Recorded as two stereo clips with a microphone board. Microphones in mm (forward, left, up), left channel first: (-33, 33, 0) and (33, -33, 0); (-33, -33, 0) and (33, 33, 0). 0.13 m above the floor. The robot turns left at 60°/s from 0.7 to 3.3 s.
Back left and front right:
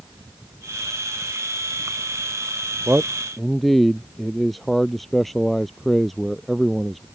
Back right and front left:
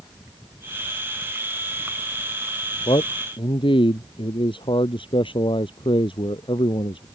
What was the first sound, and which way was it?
A man speaking, 110° right.